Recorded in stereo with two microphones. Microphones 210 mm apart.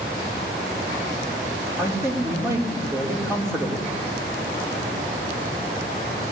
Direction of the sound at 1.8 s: 15° right (ahead or behind).